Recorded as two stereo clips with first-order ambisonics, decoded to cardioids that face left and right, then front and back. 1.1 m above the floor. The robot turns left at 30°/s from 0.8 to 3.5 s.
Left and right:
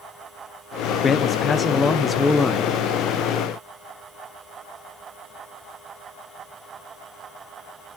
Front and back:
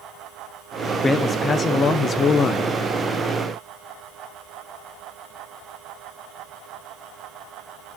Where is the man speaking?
55° left, 0.6 m; by 2.8 s straight ahead, 0.6 m.